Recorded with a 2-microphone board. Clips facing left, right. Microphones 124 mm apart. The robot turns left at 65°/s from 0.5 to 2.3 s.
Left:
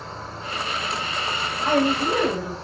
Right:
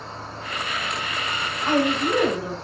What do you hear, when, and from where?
0.0 s an insect: 5° left, 1.8 m; by 2.7 s 115° right, 1.8 m
1.6 s a woman speaking: 20° left (ahead or behind), 1.5 m; by 2.6 s 10° left (ahead or behind), 1.5 m